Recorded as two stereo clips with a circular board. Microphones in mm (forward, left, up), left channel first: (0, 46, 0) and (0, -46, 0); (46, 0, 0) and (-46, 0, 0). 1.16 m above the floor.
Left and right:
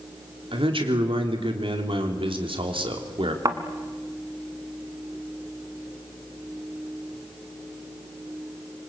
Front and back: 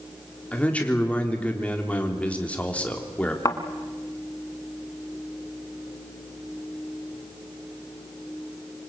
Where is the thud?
45° right, 2.0 m.